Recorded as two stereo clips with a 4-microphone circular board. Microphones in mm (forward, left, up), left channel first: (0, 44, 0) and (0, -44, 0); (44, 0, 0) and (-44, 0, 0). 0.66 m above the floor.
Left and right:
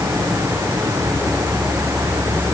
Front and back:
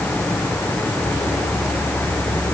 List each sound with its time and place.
Only background noise.